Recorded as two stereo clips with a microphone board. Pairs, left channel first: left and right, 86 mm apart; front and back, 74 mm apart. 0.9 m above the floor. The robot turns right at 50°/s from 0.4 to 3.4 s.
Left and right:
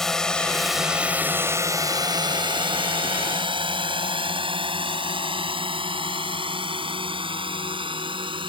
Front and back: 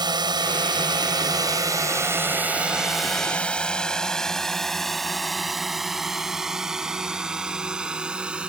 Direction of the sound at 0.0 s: 175° left.